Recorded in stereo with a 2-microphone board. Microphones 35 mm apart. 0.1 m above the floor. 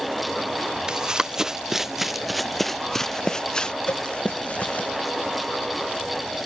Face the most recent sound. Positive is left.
turn(degrees=70)  # may be behind; listen again after turning